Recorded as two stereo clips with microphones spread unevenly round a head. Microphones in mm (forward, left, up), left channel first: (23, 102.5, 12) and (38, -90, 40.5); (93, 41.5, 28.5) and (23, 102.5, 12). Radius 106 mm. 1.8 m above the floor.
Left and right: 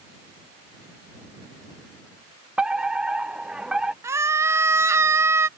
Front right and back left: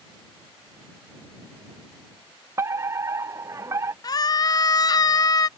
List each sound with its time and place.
2.6 s a fire alarm: 175° right
4.0 s a scream: 15° right